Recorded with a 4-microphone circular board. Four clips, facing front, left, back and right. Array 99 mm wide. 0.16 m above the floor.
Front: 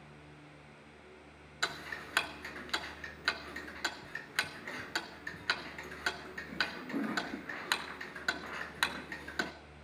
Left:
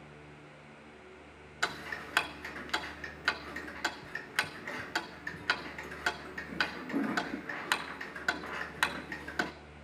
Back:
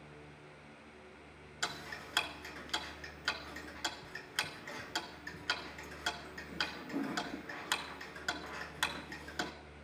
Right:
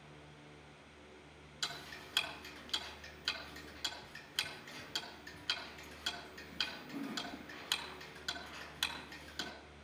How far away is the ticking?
About 0.7 m.